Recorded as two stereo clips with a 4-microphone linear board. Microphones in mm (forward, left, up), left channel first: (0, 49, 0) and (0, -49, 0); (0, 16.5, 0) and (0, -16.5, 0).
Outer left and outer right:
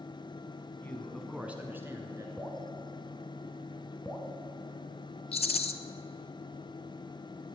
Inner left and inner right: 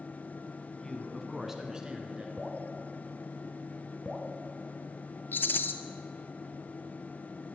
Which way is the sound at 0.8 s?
20° left (ahead or behind).